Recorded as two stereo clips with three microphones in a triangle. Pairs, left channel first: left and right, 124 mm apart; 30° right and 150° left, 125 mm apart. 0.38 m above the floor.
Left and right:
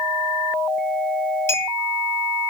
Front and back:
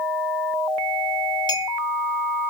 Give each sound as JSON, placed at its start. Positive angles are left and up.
{"t": 1.5, "sound": "a clink", "azimuth_deg": 20, "distance_m": 1.6}